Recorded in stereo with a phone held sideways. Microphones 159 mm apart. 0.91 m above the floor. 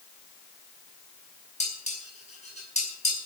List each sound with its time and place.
1.6 s dishes clattering: 45° left (ahead or behind), 5.5 m